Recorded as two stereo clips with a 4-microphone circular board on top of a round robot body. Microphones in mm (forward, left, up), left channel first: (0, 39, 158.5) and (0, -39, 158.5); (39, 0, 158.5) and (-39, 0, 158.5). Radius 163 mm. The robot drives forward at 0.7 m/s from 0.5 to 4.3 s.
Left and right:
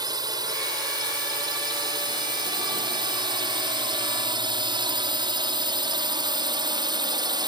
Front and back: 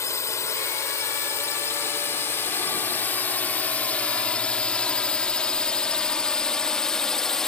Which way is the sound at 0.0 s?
55° right.